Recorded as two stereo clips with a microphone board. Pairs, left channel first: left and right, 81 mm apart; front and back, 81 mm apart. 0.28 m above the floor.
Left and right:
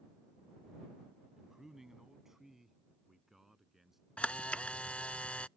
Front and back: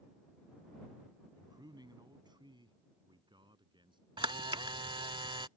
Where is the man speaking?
175° right.